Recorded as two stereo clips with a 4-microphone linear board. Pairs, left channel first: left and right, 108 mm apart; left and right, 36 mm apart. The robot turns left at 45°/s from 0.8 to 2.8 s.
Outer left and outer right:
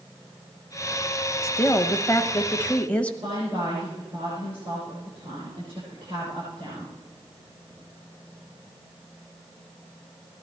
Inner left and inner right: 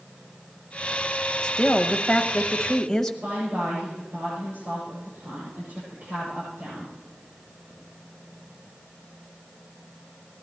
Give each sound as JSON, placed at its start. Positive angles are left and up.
{"t": 1.4, "sound": "a woman speaking", "side_deg": 25, "distance_m": 1.0}
{"t": 3.2, "sound": "a woman speaking", "side_deg": -55, "distance_m": 8.0}